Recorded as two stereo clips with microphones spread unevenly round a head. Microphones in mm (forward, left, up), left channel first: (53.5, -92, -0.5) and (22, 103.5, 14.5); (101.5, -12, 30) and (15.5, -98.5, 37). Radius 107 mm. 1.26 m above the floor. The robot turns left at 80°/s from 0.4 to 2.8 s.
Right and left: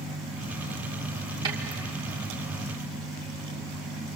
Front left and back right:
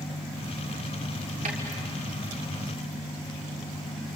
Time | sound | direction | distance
1.4 | a snare drum | 170° left | 2.5 m